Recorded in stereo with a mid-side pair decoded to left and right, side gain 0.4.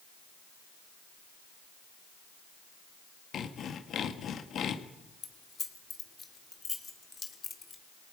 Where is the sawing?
65° left, 1.9 m.